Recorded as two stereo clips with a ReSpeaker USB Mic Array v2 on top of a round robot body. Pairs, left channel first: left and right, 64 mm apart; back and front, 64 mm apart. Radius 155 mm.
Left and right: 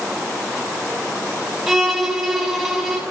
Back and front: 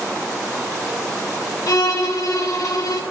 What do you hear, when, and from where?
1.7 s a violin: 175° right, 1.9 m